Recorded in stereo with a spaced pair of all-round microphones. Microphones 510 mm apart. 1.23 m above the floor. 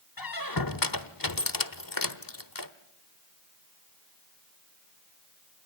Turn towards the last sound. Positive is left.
turn(degrees=40)  # may be behind; listen again after turning